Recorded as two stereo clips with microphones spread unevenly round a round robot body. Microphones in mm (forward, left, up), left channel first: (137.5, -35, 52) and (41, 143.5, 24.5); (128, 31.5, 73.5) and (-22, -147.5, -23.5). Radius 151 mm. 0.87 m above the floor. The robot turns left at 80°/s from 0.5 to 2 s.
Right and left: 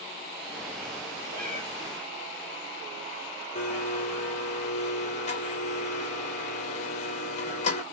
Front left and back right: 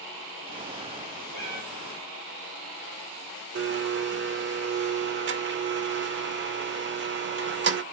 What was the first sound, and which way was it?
A cat meowing, 170° left.